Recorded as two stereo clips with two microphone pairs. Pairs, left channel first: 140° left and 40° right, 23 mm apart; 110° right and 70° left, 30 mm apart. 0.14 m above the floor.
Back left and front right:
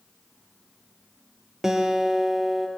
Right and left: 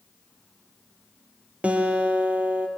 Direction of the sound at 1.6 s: 30° left.